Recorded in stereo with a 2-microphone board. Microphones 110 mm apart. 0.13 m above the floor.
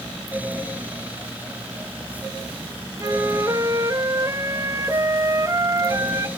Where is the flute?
30° right (ahead or behind), 1.6 m.